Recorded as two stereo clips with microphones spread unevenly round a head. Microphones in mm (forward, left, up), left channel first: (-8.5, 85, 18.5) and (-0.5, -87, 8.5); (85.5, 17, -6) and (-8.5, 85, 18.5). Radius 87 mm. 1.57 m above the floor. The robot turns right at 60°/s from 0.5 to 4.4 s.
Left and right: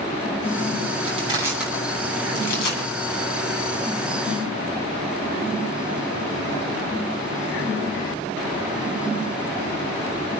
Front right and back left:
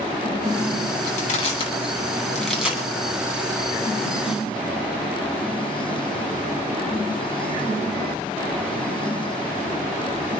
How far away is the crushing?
About 8.5 m.